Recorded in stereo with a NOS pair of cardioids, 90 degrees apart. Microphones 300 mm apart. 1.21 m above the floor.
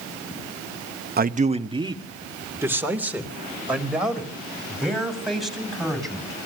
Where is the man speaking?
30° right, 1.0 m; by 6.4 s straight ahead, 7.5 m.